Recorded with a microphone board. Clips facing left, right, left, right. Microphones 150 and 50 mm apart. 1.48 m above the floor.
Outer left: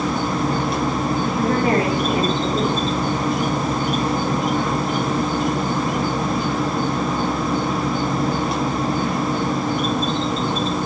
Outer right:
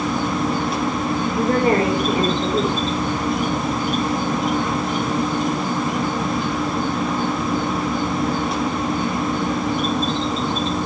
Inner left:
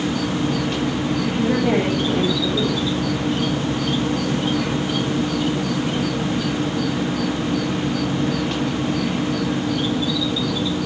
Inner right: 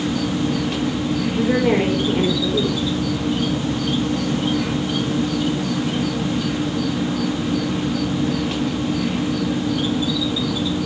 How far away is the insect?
About 0.9 m.